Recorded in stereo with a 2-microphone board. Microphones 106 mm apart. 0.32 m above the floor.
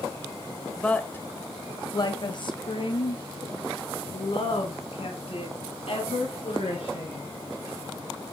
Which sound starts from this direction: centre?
A woman speaking, at 0.8 s.